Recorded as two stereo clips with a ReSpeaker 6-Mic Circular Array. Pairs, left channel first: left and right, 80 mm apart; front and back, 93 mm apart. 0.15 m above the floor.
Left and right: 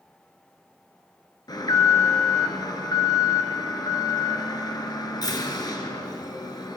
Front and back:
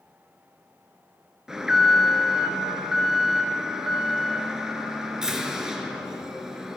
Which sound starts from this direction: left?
An alarm, at 1.5 s.